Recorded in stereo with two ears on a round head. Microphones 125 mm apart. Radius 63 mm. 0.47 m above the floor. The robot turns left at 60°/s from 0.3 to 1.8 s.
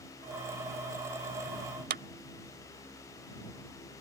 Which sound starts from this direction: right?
A clap, at 1.9 s.